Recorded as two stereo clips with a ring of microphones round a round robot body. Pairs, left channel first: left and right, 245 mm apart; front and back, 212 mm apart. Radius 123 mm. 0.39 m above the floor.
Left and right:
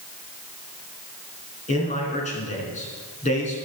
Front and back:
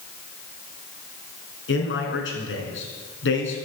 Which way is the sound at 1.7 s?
30° left.